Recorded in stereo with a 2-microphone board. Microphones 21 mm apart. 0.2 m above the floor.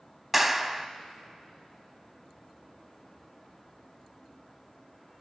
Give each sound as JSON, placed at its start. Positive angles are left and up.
{"t": 0.3, "sound": "a clap", "side_deg": -10, "distance_m": 0.8}